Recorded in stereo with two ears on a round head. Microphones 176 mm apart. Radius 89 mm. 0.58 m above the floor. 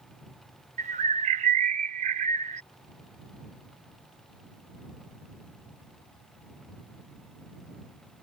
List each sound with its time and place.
0.8 s a bird: 35° right (ahead or behind)